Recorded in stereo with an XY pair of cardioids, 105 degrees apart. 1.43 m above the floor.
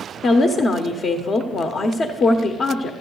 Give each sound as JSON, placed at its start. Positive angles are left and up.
{"t": 0.2, "sound": "a woman speaking", "azimuth_deg": 50, "distance_m": 0.8}